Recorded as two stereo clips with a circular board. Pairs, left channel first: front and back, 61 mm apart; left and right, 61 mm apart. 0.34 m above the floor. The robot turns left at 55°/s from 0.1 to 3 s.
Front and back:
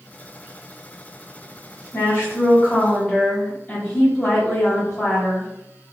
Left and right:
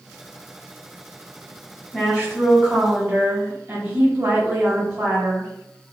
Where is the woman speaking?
10° left, 1.1 m; by 5.5 s 50° right, 1.1 m.